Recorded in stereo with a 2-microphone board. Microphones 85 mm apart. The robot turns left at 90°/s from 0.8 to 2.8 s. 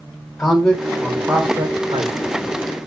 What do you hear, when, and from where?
0.4 s a man speaking: 20° left, 0.6 m; by 2.2 s 100° right, 0.6 m